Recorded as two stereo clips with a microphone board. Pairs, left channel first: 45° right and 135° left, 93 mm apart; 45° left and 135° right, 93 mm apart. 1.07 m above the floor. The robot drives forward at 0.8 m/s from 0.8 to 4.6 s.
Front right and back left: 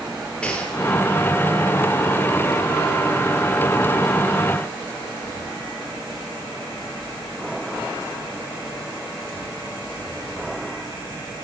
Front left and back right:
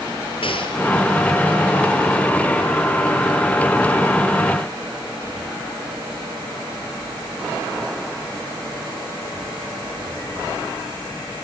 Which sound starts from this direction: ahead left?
A gunshot, at 0.4 s.